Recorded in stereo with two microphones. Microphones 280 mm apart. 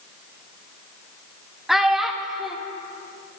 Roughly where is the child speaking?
Centre.